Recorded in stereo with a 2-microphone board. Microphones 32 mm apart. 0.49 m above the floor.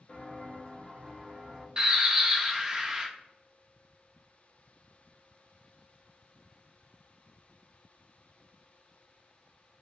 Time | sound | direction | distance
0.1 | footsteps | 35° left (ahead or behind) | 1.3 m
1.8 | a bird | 25° right (ahead or behind) | 0.6 m